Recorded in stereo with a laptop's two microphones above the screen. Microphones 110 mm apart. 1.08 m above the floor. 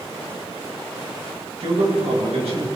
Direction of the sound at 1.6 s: 70° right (ahead or behind).